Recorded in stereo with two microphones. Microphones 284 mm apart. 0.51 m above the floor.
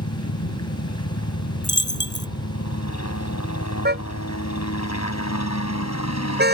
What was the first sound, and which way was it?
A helicopter, 65° left (ahead or behind).